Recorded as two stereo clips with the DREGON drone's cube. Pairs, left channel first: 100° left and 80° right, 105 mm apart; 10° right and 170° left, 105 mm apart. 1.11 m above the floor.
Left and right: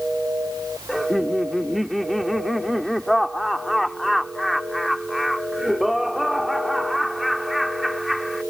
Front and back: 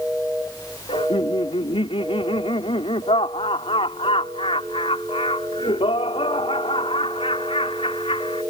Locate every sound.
0.9 s laughter: 10° left